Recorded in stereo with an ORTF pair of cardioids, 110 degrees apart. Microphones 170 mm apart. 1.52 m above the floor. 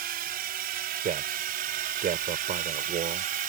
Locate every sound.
0.0 s a drone: 65° right; by 3.5 s 60° right
1.0 s a man speaking: 50° right